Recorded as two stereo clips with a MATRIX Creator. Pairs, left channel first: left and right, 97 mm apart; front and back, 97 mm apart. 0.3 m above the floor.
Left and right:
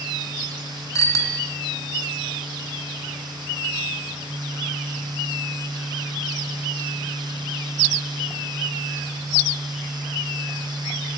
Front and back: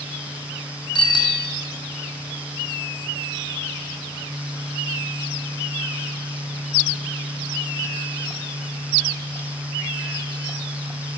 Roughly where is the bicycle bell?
Ahead left.